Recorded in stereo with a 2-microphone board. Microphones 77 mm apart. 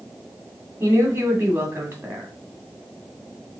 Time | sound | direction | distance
0.8 | a woman speaking | 30° right (ahead or behind) | 2 m